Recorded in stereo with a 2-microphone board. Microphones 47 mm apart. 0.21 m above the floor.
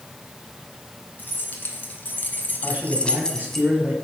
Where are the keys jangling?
40° left (ahead or behind), 2.0 m; by 3.6 s 5° left (ahead or behind), 1.1 m.